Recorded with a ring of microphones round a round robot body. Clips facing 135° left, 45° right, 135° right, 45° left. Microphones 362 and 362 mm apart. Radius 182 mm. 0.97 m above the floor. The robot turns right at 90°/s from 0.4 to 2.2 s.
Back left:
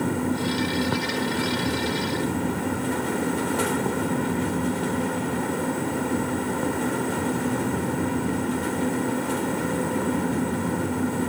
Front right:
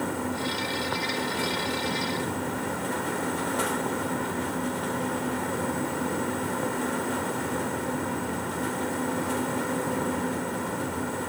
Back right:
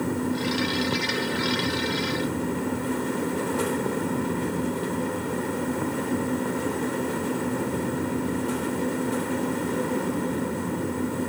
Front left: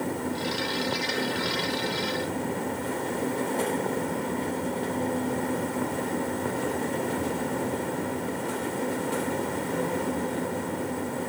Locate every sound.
Only background noise.